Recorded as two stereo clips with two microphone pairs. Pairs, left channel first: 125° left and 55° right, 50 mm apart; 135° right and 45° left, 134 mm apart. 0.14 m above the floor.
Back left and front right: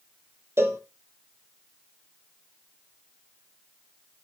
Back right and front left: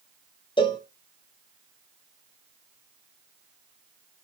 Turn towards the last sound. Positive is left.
turn(degrees=-85)